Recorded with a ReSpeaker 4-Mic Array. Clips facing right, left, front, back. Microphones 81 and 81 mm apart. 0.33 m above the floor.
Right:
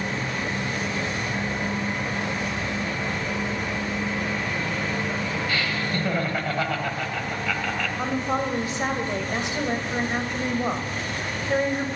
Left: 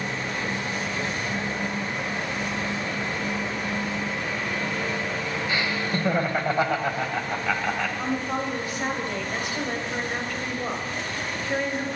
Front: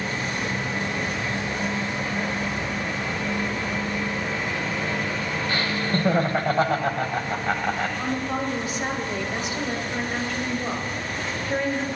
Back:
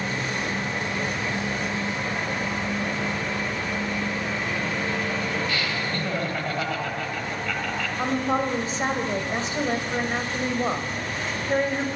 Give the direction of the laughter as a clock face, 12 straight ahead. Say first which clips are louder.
Even, front 3 dB; 11 o'clock.